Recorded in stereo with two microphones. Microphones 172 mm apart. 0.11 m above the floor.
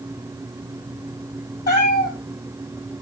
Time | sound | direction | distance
1.7 | a cat meowing | 60° left (ahead or behind) | 2.5 m